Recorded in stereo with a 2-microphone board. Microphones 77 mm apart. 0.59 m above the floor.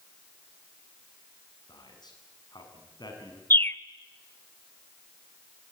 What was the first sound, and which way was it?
A man speaking, 65° left (ahead or behind).